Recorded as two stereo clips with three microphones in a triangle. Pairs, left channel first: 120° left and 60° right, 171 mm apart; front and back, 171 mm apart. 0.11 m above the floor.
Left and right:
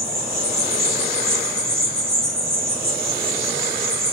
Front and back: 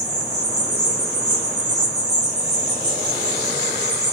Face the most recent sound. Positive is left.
turn(degrees=-25)